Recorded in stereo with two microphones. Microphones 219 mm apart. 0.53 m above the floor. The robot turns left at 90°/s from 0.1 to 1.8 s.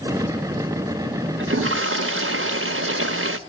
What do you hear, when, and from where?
1.4 s a toilet flushing: 65° right, 0.9 m; by 3.4 s 105° right, 0.9 m